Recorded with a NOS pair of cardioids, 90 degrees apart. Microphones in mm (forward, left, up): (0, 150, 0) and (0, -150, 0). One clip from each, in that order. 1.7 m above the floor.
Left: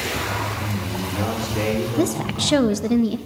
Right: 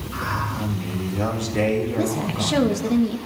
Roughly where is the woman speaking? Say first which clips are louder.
Left 2 dB; ahead left.